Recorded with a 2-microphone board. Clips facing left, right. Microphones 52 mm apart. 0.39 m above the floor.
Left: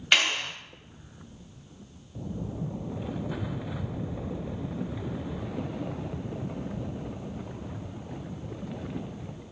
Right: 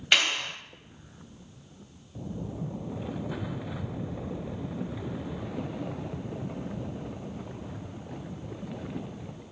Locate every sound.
0.1 s a clap: 5° left (ahead or behind), 1.5 m